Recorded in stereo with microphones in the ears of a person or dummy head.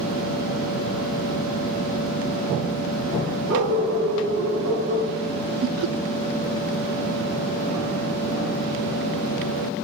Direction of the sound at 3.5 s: 80° right.